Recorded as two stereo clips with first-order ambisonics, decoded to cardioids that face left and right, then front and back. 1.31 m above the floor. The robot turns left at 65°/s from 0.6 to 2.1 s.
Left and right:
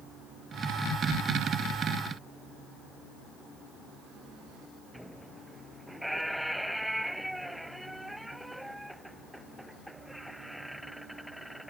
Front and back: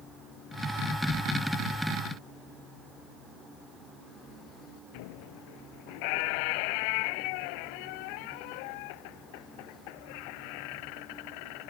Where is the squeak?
Straight ahead.